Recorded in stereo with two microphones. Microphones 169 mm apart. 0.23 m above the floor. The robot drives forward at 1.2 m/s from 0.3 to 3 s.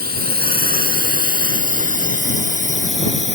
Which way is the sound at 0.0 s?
60° right (ahead or behind).